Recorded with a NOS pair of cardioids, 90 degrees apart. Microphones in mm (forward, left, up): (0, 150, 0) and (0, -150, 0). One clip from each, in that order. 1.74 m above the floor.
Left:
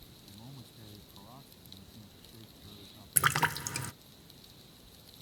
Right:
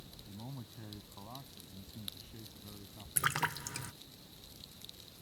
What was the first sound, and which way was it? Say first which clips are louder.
A man speaking: right 2 dB; 40° right.